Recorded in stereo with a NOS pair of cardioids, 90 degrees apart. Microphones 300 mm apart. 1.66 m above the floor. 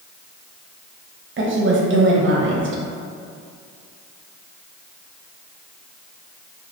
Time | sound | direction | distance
1.4 | a woman speaking | 40° right | 0.9 m